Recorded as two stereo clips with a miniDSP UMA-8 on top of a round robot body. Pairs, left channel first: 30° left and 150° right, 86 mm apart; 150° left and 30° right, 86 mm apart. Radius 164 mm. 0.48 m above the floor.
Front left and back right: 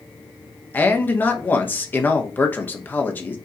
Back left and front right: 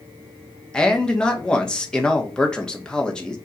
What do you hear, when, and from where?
0.7 s a man speaking: 75° left, 1.3 m